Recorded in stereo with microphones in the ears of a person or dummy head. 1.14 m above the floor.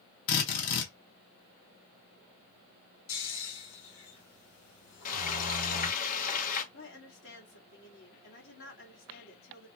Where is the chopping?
No chopping in this recording.